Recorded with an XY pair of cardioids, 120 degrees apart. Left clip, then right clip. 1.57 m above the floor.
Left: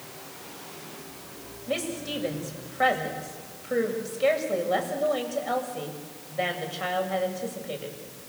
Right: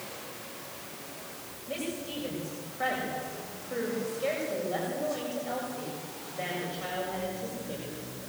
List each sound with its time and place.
1.7 s a woman speaking: 50° left, 7.5 m